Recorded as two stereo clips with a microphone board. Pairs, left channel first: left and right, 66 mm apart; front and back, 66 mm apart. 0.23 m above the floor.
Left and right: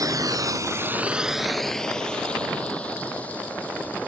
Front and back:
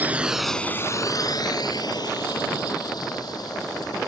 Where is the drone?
115° right; by 4.1 s 20° left.